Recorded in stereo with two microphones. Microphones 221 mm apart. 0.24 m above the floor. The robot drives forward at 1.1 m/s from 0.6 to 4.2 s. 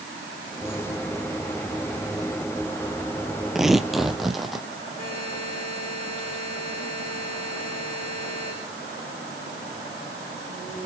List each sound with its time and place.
3.5 s tearing paper: centre (ahead or behind), 0.8 m
5.0 s a buzzer: 40° left (ahead or behind), 9 m